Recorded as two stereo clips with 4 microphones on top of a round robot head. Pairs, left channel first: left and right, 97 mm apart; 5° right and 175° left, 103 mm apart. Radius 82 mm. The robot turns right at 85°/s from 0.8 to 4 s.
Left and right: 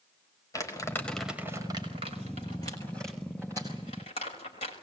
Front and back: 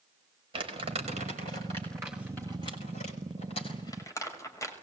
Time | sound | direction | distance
0.5 | crumpling | 145° left | 5.5 m